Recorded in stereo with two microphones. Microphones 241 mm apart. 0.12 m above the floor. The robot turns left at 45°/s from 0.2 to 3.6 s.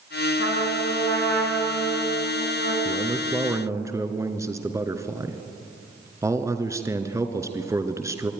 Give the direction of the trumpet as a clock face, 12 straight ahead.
10 o'clock.